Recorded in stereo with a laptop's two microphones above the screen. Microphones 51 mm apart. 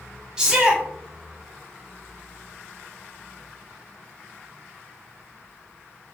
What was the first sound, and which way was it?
A shout, 10° right (ahead or behind).